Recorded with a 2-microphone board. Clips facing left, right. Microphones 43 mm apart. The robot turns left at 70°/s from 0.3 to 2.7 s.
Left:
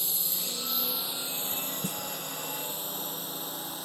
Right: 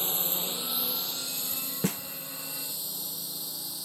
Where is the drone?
40° right (ahead or behind); by 3.9 s 45° left (ahead or behind).